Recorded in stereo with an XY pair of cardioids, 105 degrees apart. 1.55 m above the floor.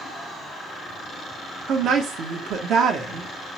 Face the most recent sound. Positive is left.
turn(degrees=-70)